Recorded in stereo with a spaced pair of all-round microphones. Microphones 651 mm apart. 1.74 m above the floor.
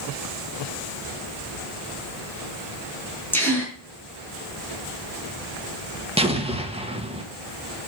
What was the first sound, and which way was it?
A gasp, 5° left (ahead or behind).